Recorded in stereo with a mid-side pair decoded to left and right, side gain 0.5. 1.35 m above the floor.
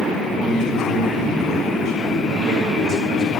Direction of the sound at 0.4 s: 55° right.